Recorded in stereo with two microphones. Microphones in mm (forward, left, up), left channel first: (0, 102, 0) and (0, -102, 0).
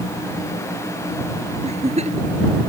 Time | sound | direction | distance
1.6 | a giggle | 35° right (ahead or behind) | ?